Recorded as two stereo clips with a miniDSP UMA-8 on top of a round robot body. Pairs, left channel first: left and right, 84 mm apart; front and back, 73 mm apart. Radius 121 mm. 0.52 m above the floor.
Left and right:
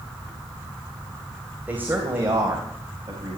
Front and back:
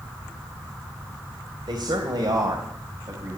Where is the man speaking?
160° right, 2.5 m; by 3.4 s 140° right, 3.5 m.